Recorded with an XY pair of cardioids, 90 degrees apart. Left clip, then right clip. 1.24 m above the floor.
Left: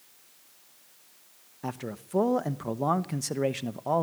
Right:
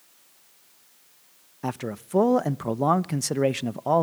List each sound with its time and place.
1.6 s a man speaking: 40° right, 0.9 m